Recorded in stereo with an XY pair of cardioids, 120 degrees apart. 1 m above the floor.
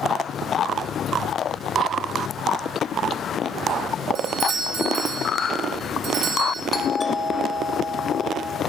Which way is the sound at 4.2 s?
55° right.